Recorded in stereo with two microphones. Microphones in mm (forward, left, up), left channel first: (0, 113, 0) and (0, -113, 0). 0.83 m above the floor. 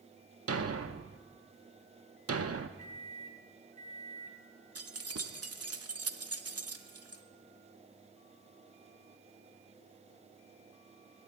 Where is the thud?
85° right, 0.6 m.